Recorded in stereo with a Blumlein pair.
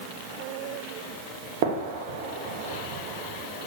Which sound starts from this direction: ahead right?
A gunshot, at 1.6 s.